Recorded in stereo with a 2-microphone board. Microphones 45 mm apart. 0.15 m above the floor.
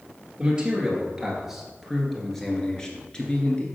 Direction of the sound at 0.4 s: 20° right (ahead or behind).